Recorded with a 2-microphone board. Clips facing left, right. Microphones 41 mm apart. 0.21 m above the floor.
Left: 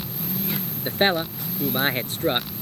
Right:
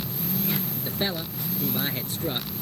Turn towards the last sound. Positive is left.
turn(degrees=50)  # may be behind; listen again after turning